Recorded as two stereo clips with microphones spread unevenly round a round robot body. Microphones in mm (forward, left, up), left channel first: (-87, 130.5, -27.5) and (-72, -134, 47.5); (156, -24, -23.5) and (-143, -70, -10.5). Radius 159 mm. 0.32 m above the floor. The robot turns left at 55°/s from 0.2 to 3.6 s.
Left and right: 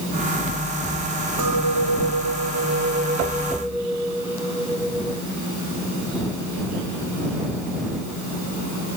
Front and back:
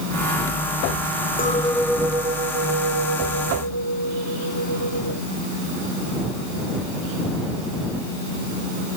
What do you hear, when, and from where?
1.4 s a clink: 55° right; by 5.2 s 175° right